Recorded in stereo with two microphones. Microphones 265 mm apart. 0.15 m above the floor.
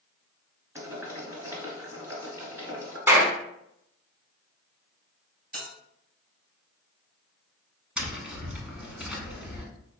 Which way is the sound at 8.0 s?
5° right (ahead or behind).